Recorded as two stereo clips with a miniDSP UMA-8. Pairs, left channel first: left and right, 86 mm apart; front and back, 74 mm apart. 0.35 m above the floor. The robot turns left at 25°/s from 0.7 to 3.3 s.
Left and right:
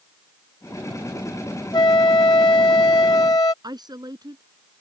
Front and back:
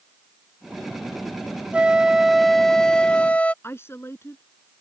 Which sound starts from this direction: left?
A flute, at 1.7 s.